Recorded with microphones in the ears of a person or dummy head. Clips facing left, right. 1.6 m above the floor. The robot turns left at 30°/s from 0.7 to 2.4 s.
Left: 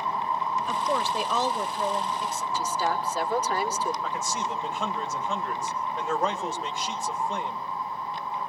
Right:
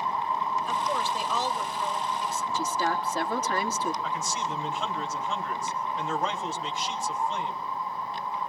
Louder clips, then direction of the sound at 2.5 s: Left 1 dB; 45° right (ahead or behind).